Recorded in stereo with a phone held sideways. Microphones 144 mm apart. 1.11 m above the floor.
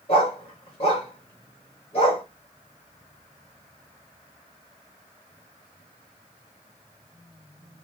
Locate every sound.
0.1 s a dog barking: 40° left (ahead or behind), 1.2 m